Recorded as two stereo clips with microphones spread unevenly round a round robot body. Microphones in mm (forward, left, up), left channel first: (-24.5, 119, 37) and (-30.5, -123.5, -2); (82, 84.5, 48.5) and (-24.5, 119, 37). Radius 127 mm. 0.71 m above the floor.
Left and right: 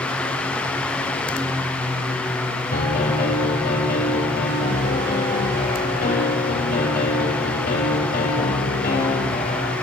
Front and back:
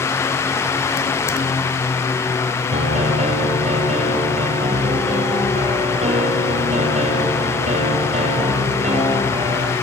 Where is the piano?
145° left, 8.5 m.